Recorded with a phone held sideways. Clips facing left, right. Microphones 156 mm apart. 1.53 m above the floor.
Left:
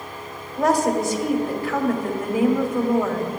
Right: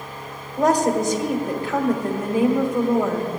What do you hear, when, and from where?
0.6 s a woman speaking: 20° right (ahead or behind), 1.3 m